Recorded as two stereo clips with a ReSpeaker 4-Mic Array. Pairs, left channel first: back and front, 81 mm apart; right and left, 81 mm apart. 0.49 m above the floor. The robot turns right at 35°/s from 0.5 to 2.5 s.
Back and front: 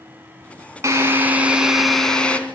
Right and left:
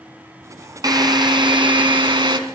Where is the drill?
55° left, 2.5 m; by 2.4 s 105° left, 2.5 m.